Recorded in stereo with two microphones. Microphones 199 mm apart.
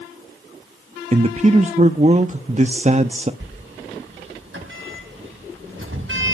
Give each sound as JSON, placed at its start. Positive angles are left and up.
{"t": 1.1, "sound": "a man speaking", "side_deg": -35, "distance_m": 0.6}
{"t": 3.4, "sound": "a sliding door", "side_deg": -85, "distance_m": 4.0}